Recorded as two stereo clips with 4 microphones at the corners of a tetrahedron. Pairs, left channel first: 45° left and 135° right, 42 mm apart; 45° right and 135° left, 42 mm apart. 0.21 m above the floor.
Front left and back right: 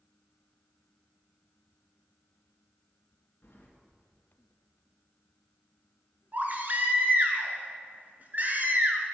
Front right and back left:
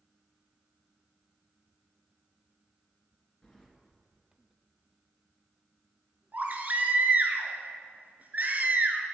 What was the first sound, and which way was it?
Keys jangling, 30° left.